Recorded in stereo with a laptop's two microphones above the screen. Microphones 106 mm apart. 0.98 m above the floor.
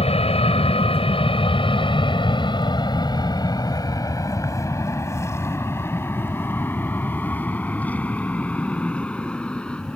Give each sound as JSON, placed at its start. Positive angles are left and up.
{"t": 0.0, "sound": "an aircraft", "side_deg": 70}